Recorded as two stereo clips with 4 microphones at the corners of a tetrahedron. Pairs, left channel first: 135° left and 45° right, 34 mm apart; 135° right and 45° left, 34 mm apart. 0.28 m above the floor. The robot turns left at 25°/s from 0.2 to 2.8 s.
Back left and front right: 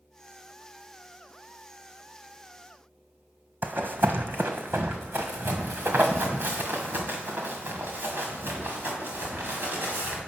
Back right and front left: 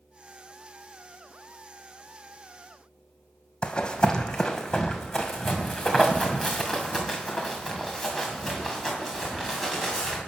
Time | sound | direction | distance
3.6 | running footsteps | 75° right | 1.0 m